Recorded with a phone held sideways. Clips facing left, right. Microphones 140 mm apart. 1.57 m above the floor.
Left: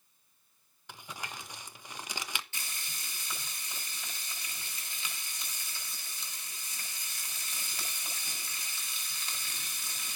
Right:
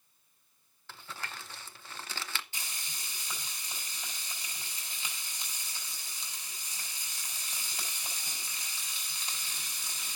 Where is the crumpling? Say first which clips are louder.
Left 1 dB; 15° left (ahead or behind), 0.5 m.